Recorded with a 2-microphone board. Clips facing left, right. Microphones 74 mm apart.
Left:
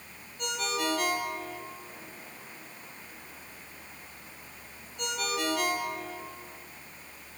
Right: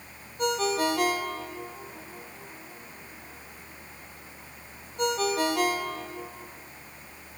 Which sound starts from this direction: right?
A ringtone, at 0.4 s.